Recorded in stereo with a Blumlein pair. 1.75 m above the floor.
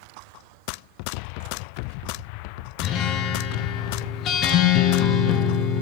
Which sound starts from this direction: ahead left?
A guitar, at 2.8 s.